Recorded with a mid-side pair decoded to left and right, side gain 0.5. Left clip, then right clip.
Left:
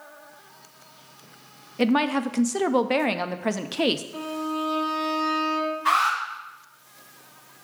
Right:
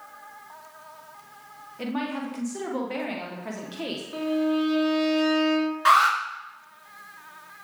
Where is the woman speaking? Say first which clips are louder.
Left 9 dB; 60° left, 0.6 m.